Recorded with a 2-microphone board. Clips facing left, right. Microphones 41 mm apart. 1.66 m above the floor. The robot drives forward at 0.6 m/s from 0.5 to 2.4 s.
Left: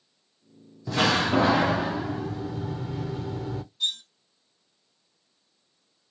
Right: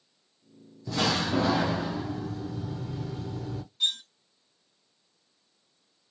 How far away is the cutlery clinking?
About 1.0 m.